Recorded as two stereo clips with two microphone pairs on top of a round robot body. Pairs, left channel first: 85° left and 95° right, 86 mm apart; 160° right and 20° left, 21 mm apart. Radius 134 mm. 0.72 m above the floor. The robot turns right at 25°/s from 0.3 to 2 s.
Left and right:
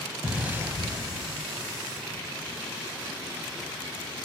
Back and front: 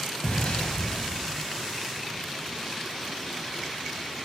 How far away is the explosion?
About 2.5 m.